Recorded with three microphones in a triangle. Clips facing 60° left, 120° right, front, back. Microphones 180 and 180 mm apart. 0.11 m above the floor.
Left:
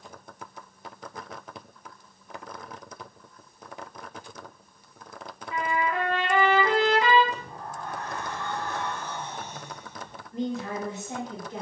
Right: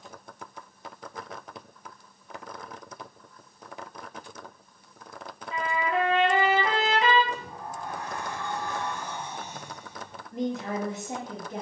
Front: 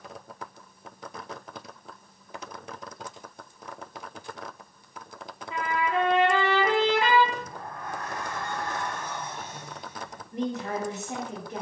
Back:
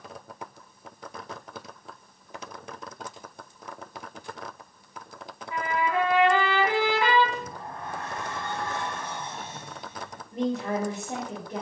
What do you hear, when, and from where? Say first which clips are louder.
5.5 s a trumpet: even, back 1 dB; 65° right, 1.3 m
7.3 s a sliding door: even, back 1 dB; 175° right, 0.7 m
10.3 s a woman speaking: right 1 dB, back 3 dB; 140° right, 2 m